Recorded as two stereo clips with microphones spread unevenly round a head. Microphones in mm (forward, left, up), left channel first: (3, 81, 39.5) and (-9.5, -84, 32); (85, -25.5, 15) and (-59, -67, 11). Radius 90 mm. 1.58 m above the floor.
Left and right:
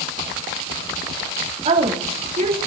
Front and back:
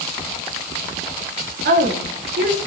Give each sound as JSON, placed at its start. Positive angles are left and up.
{"t": 1.6, "sound": "a woman speaking", "azimuth_deg": -150, "distance_m": 4.0}